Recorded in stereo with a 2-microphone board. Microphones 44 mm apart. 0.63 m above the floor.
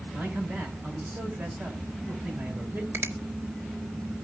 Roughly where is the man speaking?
Right.